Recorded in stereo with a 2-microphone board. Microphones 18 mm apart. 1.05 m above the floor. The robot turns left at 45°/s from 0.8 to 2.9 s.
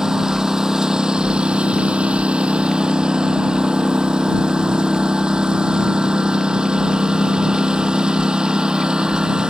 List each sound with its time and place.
0.0 s a lawn mower: 35° right; by 9.5 s 130° right